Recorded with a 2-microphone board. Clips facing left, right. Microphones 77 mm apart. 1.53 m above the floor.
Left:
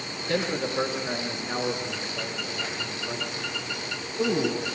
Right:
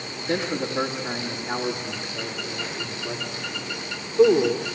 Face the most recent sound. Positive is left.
turn(degrees=-45)  # may be behind; listen again after turning